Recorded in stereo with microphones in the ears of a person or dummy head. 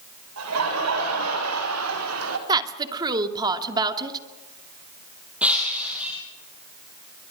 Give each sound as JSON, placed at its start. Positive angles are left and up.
{"t": 0.4, "sound": "laughter", "side_deg": -80, "distance_m": 5.0}
{"t": 2.5, "sound": "a woman speaking", "side_deg": -20, "distance_m": 2.0}
{"t": 5.4, "sound": "breaking glass", "side_deg": -10, "distance_m": 2.0}